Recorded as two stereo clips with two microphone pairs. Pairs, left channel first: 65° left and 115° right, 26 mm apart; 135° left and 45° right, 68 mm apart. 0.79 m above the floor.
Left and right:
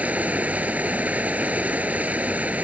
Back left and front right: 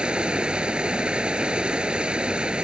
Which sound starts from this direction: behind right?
Running water, at 0.0 s.